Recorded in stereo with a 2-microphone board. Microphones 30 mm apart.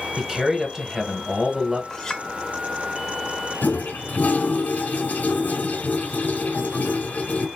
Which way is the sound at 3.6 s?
80° left.